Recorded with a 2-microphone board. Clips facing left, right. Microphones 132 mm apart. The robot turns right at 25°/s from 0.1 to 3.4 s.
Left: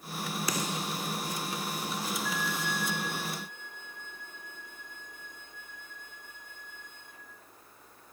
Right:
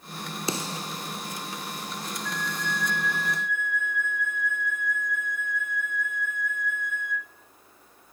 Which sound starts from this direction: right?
A snare drum, at 0.5 s.